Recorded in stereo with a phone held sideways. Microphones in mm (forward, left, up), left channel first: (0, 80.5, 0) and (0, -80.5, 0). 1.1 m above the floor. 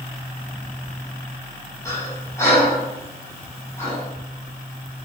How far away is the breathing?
About 6.5 m.